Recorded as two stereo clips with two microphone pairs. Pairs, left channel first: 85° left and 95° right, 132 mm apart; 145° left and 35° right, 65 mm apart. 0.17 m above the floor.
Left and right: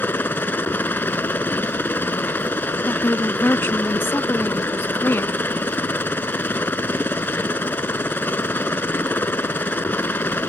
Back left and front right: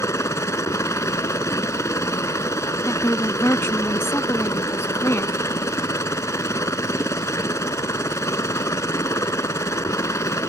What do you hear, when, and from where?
0.0 s a helicopter: 155° left
2.9 s a woman speaking: 145° left